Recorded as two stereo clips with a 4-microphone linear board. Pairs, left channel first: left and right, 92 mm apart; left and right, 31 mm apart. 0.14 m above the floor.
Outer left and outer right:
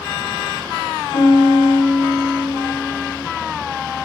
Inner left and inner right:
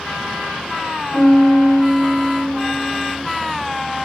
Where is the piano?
65° left (ahead or behind), 3.5 m.